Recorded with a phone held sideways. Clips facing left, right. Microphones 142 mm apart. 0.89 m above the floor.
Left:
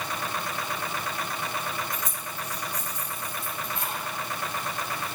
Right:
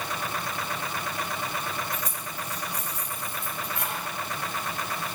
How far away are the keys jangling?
About 3 m.